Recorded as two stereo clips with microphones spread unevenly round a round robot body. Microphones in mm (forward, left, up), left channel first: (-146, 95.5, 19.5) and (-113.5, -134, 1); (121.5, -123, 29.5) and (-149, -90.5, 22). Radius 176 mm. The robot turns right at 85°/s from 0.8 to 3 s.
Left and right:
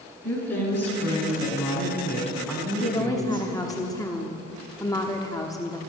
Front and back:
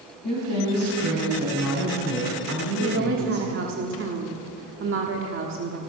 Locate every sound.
0.2 s a woman speaking: 35° left, 5.5 m; by 3.5 s 135° right, 5.5 m
2.8 s a woman speaking: 155° left, 1.1 m; by 5.8 s 175° left, 1.1 m